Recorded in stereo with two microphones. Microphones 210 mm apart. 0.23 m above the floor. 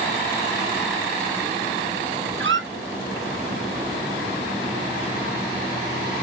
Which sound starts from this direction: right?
A squeak, at 2.4 s.